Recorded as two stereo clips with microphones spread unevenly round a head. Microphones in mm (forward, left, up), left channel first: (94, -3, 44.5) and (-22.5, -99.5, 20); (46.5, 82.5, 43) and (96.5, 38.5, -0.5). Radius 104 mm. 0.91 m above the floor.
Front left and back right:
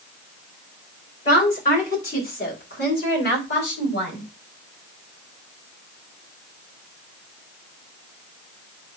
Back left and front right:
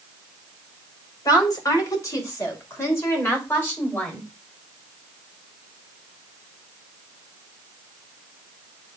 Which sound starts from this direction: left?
A woman speaking, at 1.2 s.